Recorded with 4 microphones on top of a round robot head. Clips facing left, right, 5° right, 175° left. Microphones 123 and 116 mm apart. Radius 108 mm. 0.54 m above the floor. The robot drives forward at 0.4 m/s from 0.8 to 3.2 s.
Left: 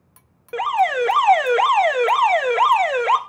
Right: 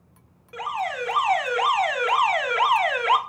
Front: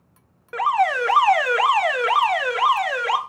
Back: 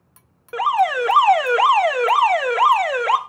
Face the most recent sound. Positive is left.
turn(degrees=140)